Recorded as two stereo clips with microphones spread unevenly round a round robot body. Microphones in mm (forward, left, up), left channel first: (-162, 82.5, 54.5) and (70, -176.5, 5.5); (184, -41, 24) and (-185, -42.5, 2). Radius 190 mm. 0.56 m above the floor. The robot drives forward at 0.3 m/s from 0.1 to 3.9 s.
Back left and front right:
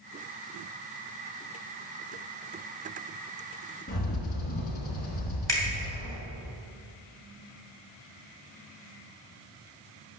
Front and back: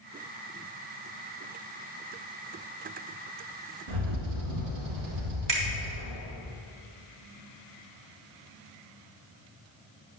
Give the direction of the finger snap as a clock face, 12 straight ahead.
5 o'clock.